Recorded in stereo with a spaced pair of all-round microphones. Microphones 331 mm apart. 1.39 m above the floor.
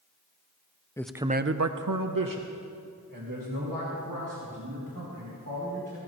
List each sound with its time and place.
1.0 s a man speaking: 10° left (ahead or behind), 0.6 m; by 6.0 s 65° right (ahead or behind), 4 m